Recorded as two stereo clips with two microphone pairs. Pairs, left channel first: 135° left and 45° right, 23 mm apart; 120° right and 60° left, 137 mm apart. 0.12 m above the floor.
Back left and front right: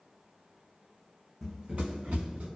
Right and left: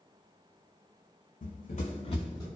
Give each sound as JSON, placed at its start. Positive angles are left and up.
{"t": 1.4, "sound": "running footsteps", "azimuth_deg": -140, "distance_m": 0.6}